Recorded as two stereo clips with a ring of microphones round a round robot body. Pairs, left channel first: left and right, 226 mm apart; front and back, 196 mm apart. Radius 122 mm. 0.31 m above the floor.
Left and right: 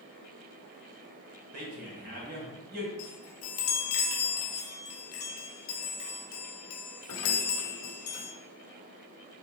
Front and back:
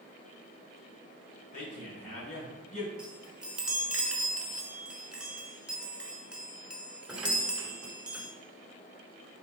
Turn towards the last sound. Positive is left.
turn(degrees=95)